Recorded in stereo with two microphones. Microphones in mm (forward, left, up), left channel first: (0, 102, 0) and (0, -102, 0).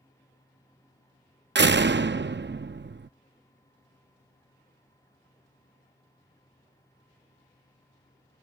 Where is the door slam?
60° right (ahead or behind).